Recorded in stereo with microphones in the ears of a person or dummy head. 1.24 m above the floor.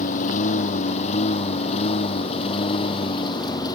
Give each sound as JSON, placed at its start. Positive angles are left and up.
{"t": 0.0, "sound": "a lawn mower", "side_deg": 45}